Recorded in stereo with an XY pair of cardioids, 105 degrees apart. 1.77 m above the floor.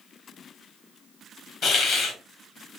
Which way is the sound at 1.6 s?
65° left.